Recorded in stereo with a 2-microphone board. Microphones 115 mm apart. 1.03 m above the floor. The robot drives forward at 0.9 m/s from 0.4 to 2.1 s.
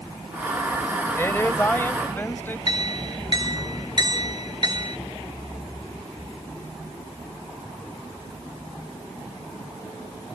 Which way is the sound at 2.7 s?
40° right (ahead or behind).